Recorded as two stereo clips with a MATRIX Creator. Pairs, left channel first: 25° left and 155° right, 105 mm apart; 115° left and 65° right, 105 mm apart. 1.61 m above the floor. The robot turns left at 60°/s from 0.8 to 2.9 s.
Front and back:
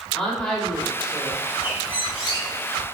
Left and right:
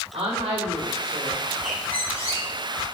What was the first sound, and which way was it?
A woman speaking, 60° right.